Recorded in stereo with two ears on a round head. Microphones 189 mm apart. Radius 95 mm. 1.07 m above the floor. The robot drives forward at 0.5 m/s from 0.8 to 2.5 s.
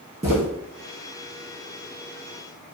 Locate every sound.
0.2 s footsteps: 15° right (ahead or behind), 1.1 m